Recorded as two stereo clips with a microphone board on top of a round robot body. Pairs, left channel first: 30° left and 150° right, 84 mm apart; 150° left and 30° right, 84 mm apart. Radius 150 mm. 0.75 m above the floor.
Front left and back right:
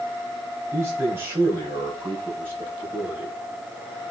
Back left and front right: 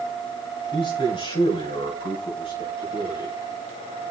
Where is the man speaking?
150° left, 6 m; by 3.3 s 140° left, 7.5 m.